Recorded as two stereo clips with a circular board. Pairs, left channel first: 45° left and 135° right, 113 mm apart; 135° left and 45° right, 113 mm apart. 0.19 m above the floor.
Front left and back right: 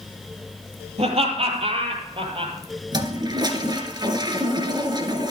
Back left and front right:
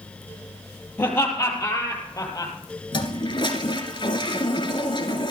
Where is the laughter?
155° right, 5 m; by 2.5 s 170° right, 4.5 m.